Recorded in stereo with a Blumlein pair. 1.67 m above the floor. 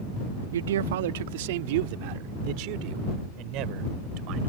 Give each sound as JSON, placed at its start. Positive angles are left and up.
{"t": 0.5, "sound": "a man speaking", "azimuth_deg": -65}